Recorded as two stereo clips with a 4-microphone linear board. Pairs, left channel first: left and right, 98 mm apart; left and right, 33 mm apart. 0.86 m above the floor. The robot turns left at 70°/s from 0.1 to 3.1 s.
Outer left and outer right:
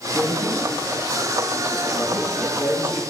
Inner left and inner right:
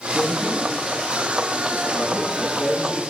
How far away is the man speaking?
About 9.5 m.